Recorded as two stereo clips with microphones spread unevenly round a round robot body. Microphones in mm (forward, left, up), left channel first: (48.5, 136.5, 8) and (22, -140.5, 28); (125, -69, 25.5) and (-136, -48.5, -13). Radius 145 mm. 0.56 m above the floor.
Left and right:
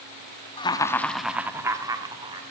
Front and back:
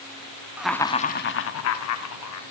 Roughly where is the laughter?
Behind left.